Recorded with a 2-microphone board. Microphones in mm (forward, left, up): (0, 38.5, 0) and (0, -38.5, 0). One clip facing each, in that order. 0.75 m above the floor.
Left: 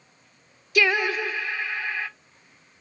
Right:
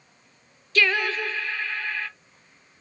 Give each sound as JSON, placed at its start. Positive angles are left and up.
{"t": 0.8, "sound": "singing", "side_deg": 15, "distance_m": 0.5}